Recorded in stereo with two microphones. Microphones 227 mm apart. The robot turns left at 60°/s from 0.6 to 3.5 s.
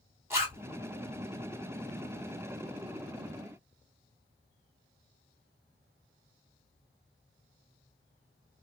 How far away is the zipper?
About 1.4 m.